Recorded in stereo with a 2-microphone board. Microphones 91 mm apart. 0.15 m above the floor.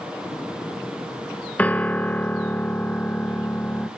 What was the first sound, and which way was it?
A piano, 15° left (ahead or behind).